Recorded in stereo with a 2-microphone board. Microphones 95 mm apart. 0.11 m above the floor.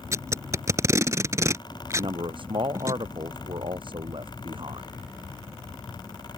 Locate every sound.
0.1 s tape being pulled: 30° right (ahead or behind)
1.9 s a man speaking: 55° right (ahead or behind)